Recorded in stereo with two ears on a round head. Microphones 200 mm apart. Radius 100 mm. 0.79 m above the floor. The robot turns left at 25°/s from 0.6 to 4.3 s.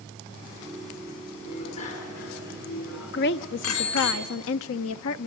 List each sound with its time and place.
1.4 s a bicycle bell: 25° left (ahead or behind), 6.5 m; by 4.1 s 90° left, 6.5 m
3.1 s a woman speaking: 50° left (ahead or behind), 0.8 m; by 5.3 s 65° left (ahead or behind), 0.8 m